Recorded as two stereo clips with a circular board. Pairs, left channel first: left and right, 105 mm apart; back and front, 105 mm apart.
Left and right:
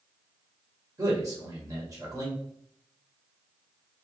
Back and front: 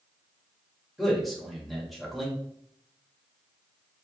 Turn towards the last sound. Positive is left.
turn(degrees=-90)